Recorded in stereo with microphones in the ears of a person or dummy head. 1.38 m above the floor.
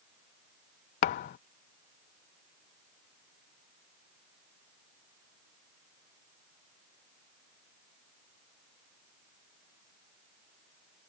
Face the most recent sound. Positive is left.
turn(degrees=45)  # may be behind; listen again after turning